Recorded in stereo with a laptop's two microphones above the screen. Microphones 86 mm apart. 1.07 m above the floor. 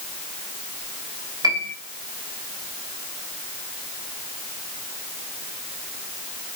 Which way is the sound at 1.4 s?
50° right (ahead or behind).